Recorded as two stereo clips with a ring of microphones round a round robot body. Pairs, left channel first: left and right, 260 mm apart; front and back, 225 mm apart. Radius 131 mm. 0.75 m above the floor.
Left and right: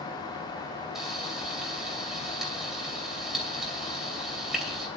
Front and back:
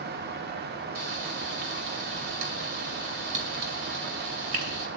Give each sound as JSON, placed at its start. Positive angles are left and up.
{"t": 0.9, "sound": "frying", "azimuth_deg": 180, "distance_m": 2.5}